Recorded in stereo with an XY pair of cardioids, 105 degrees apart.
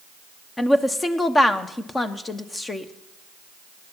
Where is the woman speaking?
25° left, 1.1 m.